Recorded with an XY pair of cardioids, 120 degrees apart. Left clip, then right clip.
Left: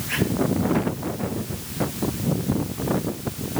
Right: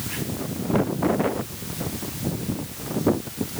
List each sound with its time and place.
Only background noise.